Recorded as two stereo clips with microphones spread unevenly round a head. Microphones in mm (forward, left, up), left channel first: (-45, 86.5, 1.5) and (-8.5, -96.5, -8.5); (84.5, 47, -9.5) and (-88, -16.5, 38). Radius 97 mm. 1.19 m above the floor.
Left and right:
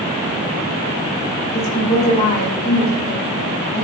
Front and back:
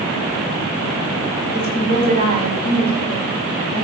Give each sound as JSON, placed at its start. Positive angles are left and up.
{"t": 1.5, "sound": "a woman speaking", "azimuth_deg": 155, "distance_m": 5.5}